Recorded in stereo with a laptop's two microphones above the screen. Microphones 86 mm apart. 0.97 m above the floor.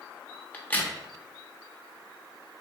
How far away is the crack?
About 0.7 m.